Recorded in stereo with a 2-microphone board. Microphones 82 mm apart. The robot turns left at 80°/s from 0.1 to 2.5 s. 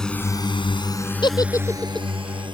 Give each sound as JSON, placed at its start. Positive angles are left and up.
{"t": 0.0, "sound": "a drone", "side_deg": 5}
{"t": 1.2, "sound": "a giggle", "side_deg": 65}